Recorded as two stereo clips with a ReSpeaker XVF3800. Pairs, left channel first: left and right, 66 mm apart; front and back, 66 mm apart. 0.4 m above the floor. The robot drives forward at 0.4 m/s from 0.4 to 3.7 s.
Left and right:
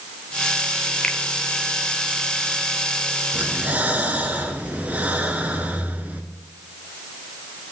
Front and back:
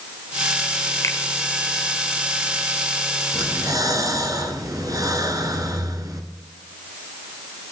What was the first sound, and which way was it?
A finger snap, 15° left.